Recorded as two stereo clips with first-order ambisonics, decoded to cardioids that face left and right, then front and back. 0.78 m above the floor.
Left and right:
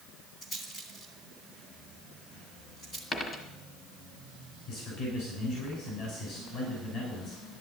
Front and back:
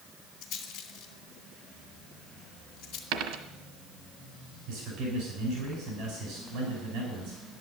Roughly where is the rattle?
Ahead left.